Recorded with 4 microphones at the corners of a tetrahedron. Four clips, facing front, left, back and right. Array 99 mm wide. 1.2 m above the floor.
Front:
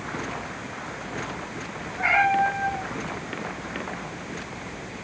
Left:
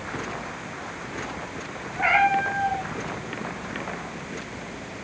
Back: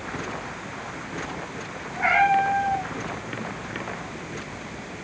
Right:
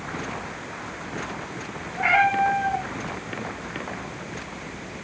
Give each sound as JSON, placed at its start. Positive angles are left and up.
{"t": 2.0, "sound": "a cat meowing", "azimuth_deg": 130, "distance_m": 8.0}